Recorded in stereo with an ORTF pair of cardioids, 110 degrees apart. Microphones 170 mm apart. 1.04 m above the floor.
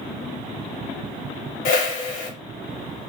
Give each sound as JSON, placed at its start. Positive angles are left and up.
{"t": 1.6, "sound": "a whoosh", "azimuth_deg": 55, "distance_m": 0.9}